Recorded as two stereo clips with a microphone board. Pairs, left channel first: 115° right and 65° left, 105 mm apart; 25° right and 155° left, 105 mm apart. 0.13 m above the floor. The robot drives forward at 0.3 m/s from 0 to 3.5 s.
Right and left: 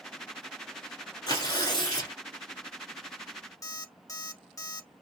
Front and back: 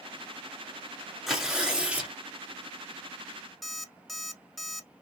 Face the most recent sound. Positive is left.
turn(degrees=-110)